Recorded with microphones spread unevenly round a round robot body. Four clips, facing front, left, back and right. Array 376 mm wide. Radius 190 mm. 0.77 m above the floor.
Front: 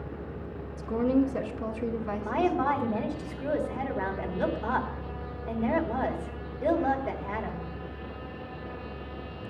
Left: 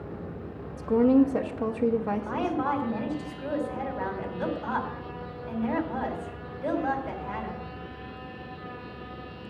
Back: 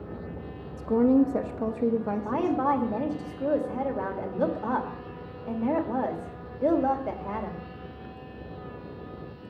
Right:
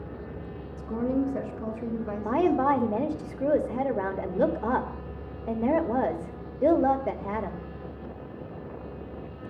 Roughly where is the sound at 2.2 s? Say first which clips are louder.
Right 5 dB, even; right.